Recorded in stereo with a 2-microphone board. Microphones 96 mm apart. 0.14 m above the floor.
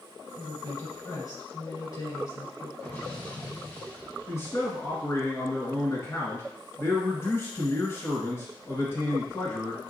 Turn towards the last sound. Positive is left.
turn(degrees=30)  # may be behind; listen again after turning